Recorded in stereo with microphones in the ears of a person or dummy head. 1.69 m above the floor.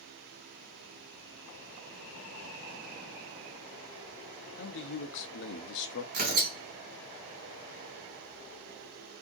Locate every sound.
4.6 s a man speaking: 65° left (ahead or behind), 0.8 m
6.1 s tearing paper: 45° right (ahead or behind), 2.5 m